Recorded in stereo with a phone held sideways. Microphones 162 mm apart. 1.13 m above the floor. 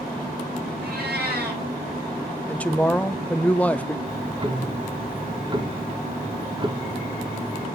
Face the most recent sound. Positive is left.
turn(degrees=-30)  # may be behind; listen again after turning